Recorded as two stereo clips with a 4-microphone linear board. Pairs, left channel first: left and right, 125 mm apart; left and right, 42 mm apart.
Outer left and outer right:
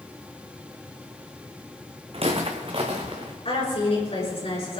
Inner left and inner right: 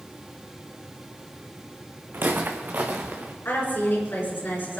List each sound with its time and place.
2.1 s footsteps: 50° right (ahead or behind), 1.8 m; by 3.3 s 40° right (ahead or behind), 2.5 m
3.5 s a woman speaking: 55° left (ahead or behind), 5.5 m